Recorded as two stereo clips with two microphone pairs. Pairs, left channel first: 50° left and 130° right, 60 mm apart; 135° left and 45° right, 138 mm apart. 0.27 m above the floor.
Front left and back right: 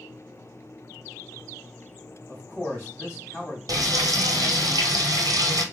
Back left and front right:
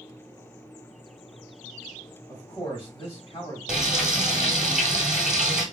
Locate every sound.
2.3 s a man speaking: 85° left, 1.4 m
3.7 s frying: 135° right, 0.9 m